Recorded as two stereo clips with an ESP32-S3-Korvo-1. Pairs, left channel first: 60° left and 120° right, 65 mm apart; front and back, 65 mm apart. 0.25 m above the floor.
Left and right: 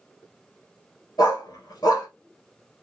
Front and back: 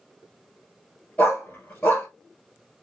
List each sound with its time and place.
1.2 s a dog barking: 60° left, 1.5 m